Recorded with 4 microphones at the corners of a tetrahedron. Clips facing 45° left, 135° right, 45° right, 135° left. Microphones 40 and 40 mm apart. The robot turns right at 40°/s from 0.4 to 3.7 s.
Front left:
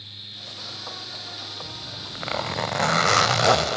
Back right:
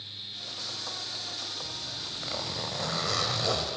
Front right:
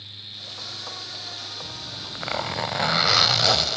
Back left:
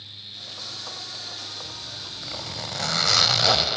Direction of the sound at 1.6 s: 25° right.